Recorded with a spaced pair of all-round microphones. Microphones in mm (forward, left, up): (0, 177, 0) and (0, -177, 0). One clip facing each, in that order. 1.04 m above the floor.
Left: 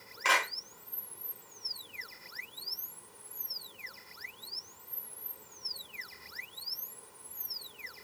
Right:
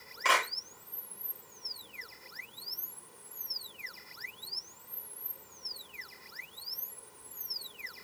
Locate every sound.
0.2 s a clap: 25° right (ahead or behind), 8.5 m